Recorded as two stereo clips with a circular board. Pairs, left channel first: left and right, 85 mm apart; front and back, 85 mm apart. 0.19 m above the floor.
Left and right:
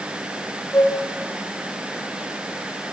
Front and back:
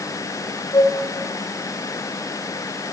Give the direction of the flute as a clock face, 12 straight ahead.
11 o'clock.